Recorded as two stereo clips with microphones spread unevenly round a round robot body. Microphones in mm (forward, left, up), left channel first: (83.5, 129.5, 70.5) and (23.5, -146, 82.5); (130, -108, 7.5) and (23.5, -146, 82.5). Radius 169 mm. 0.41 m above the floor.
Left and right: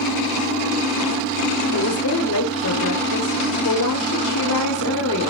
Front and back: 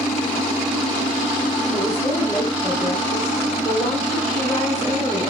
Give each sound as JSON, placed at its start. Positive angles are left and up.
{"t": 1.7, "sound": "a woman speaking", "azimuth_deg": 95, "distance_m": 1.5}